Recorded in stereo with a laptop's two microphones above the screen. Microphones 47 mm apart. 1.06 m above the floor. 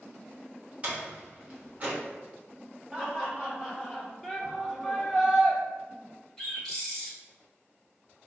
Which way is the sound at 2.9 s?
10° right (ahead or behind).